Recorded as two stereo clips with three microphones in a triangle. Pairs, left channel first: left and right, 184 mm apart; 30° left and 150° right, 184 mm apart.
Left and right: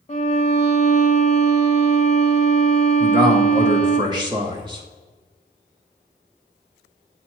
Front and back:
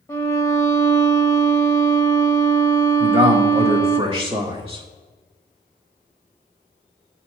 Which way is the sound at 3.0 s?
130° right.